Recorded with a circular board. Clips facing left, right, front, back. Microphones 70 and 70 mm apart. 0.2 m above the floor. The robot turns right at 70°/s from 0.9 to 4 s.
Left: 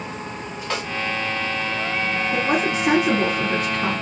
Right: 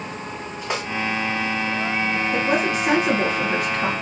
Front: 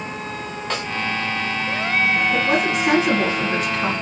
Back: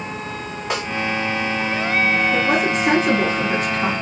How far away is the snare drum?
About 1.0 m.